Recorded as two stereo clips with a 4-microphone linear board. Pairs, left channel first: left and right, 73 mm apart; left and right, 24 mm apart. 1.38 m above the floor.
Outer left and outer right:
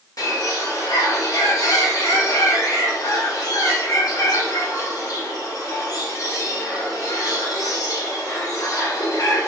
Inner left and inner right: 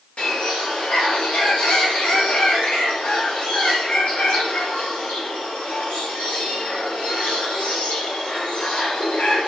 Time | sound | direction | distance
0.2 | a bird | 60° left (ahead or behind) | 0.9 m